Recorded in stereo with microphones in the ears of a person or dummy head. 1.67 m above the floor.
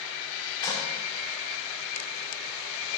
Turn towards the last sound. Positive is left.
turn(degrees=20)  # may be behind; listen again after turning